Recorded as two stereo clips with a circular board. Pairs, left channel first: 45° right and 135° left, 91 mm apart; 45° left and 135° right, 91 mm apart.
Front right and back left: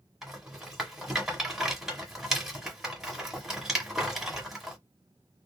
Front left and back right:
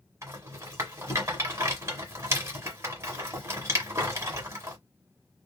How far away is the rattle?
About 1.4 m.